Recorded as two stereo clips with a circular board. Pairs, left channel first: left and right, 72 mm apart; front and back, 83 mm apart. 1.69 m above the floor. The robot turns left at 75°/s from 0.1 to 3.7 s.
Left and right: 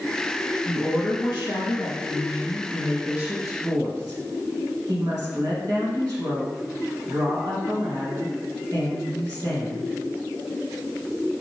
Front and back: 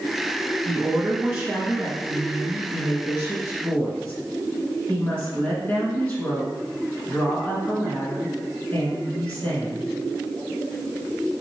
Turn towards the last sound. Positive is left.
turn(degrees=-65)